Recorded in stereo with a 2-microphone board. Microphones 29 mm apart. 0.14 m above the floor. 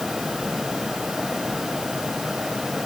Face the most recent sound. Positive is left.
No sound to turn to.